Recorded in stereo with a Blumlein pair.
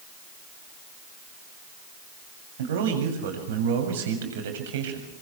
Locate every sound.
2.6 s a man speaking: 55° right, 7.5 m